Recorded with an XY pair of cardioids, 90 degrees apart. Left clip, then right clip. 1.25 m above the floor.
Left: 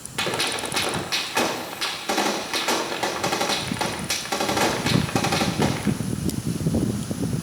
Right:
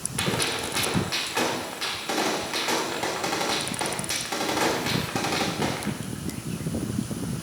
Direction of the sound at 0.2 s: 30° left.